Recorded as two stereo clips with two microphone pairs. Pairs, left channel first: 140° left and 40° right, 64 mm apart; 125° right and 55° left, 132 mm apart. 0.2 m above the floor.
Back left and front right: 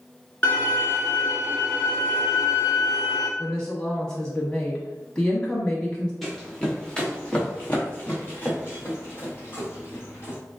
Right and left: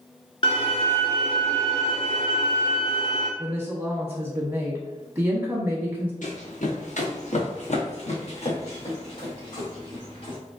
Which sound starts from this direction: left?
A woman speaking, at 3.4 s.